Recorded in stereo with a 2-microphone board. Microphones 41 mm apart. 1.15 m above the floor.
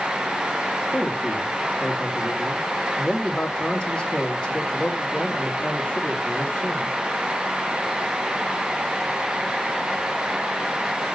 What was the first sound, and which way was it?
A man speaking, 25° left (ahead or behind).